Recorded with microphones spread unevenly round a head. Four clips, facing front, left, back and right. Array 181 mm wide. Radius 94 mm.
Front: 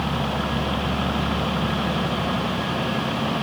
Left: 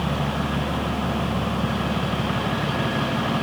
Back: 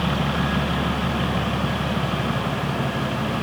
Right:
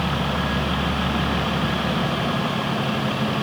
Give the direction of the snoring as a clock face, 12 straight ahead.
I don't hear snoring.